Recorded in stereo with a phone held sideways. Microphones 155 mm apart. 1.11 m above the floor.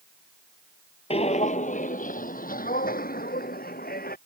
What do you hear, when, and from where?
1.1 s footsteps: 40° left (ahead or behind); by 4.2 s 75° left (ahead or behind)